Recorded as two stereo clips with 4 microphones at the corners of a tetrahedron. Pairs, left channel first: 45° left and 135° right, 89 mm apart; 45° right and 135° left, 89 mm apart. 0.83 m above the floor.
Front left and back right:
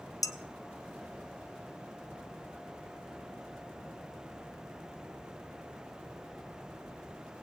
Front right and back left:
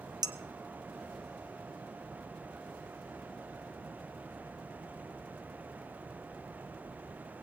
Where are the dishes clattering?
95° left, 0.8 m.